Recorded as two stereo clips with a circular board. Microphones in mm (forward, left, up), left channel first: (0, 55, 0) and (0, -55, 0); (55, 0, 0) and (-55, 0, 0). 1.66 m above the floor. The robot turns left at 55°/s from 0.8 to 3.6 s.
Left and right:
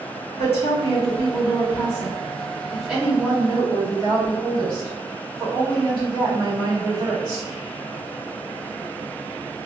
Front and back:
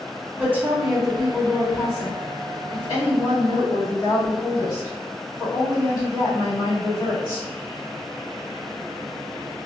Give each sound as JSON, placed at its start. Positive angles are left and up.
{"t": 0.4, "sound": "a woman speaking", "azimuth_deg": 110, "distance_m": 2.0}